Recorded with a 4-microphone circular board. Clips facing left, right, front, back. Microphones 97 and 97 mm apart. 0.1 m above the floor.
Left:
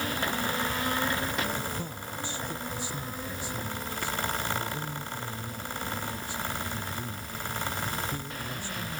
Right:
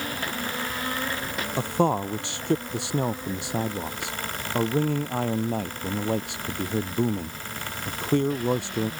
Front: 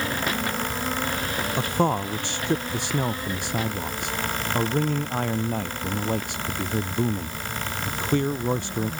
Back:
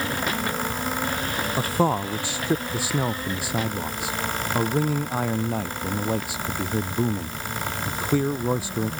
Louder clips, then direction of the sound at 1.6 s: Right 13 dB, back 1 dB; 95° right.